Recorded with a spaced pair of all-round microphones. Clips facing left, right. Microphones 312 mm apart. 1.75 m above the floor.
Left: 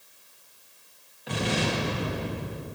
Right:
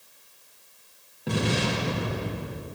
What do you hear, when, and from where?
1.3 s an explosion: 55° right (ahead or behind), 2 m